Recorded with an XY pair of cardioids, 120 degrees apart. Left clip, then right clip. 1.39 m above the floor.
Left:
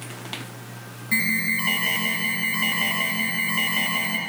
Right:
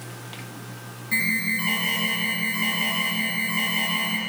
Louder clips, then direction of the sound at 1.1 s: Left 1 dB; 25° left.